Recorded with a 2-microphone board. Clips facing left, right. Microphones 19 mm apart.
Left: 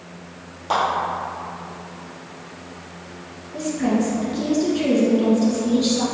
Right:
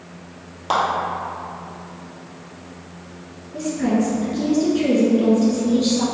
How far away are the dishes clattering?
I don't hear dishes clattering.